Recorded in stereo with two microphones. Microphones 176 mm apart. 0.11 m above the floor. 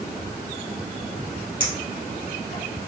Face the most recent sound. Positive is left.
turn(degrees=60)  # may be behind; listen again after turning